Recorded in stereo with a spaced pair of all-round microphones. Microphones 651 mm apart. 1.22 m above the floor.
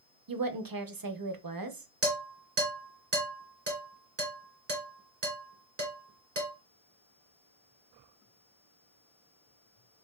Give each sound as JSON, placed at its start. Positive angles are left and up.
{"t": 0.3, "sound": "a woman speaking", "side_deg": -35, "distance_m": 0.6}
{"t": 2.0, "sound": "dishes clattering", "side_deg": -80, "distance_m": 2.5}